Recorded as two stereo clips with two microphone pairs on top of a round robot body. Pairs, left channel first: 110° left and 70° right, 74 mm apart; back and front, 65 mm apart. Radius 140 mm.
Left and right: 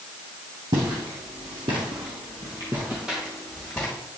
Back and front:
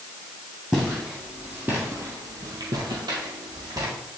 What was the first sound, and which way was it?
Footsteps, 85° right.